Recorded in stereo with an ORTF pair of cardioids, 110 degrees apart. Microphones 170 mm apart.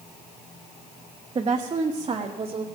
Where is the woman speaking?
30° right, 1.2 m.